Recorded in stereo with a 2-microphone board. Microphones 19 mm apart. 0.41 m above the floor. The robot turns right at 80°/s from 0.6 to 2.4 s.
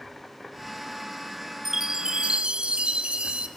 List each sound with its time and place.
1.6 s a chime: 160° right, 0.8 m; by 3.5 s 100° right, 0.8 m